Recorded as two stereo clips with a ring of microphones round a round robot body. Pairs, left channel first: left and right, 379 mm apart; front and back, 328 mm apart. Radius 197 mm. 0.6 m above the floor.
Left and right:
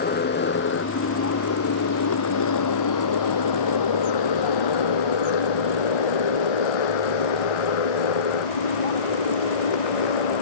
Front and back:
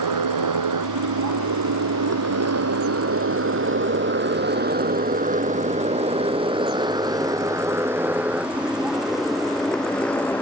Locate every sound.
0.0 s a motorcycle: 155° left; by 10.4 s 85° left